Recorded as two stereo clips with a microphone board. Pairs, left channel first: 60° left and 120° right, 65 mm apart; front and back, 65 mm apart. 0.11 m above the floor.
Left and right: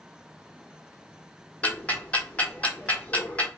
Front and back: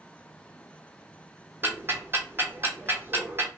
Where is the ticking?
125° left, 0.6 m.